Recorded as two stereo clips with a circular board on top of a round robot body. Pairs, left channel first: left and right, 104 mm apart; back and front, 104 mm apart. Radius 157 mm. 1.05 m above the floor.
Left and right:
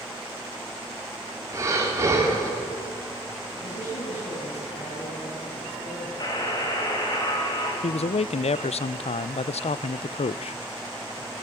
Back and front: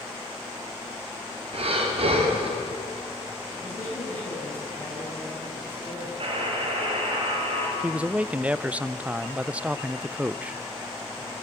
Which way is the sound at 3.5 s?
105° left.